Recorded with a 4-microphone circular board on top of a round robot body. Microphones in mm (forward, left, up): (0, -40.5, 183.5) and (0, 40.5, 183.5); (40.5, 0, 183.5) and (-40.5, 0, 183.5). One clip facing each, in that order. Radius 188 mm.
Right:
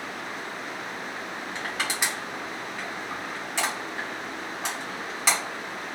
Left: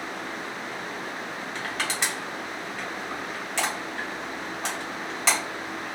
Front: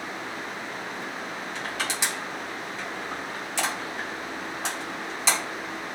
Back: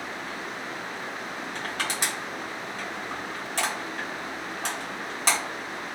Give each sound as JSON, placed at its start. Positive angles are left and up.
{"t": 1.6, "sound": "crushing", "azimuth_deg": -165, "distance_m": 1.8}